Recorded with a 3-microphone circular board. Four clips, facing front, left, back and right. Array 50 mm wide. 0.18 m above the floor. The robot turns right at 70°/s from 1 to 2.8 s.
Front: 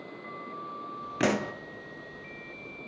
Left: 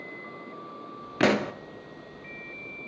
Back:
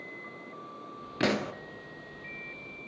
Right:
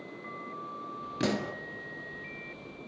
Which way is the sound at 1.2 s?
75° left.